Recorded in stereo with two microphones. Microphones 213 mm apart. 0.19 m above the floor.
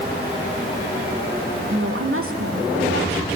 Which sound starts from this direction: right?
A woman speaking, at 1.7 s.